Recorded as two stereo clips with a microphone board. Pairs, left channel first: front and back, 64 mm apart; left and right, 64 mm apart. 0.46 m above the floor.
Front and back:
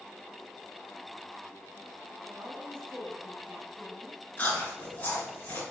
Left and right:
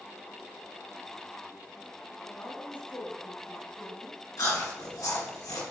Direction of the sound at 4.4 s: 65° left.